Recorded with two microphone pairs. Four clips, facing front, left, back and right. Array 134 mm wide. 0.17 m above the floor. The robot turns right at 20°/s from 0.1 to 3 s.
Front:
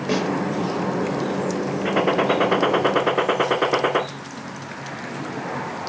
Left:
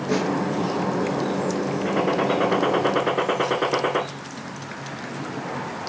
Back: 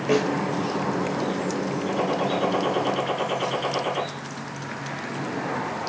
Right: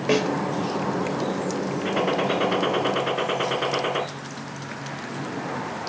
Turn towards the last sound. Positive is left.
turn(degrees=10)